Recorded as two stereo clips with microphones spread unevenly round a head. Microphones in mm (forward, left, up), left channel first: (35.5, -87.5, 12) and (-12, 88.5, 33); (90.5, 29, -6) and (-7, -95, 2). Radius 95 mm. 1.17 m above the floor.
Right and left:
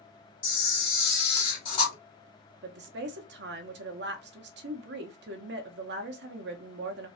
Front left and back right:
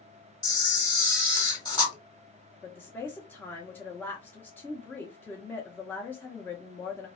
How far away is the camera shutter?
About 1.6 m.